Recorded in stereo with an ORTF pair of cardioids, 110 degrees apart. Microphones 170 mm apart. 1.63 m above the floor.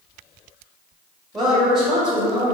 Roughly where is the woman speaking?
Ahead.